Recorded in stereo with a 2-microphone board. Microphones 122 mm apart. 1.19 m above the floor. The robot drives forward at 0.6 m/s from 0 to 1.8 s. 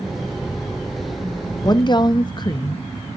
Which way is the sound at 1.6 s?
35° left (ahead or behind).